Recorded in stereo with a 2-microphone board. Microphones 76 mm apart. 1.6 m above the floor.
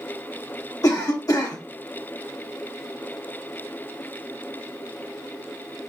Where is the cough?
50° left (ahead or behind), 0.8 m.